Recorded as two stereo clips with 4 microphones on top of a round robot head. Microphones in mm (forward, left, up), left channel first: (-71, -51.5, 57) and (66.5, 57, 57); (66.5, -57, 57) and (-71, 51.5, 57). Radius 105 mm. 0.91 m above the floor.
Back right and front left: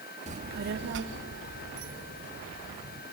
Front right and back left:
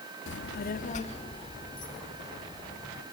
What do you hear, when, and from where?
0.3 s a child speaking: 15° right, 0.8 m; by 3.0 s 40° left, 3 m